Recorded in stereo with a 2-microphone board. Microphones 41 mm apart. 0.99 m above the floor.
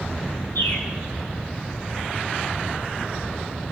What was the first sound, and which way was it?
A bird, 80° left.